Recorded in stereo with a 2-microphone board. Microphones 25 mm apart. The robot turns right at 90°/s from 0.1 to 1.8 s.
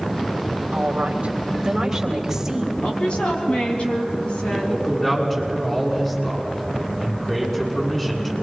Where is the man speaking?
15° left (ahead or behind), 6.5 m.